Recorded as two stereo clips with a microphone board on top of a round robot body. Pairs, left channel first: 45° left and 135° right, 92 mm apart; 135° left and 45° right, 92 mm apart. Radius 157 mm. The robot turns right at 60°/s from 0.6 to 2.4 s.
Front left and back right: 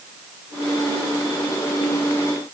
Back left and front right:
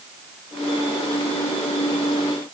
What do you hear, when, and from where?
Only background noise.